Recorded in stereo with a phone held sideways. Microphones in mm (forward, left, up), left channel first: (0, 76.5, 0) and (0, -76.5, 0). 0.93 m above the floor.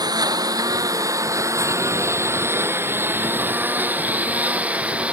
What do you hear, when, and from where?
0.0 s a lawn mower: 25° right (ahead or behind); by 5.1 s 10° right (ahead or behind)